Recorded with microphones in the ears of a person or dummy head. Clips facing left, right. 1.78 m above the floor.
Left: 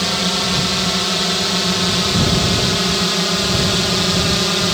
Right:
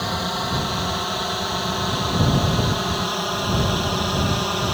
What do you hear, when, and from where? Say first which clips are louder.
0.0 s a drone: left 5 dB; 35° left (ahead or behind); by 4.8 s 30° left (ahead or behind)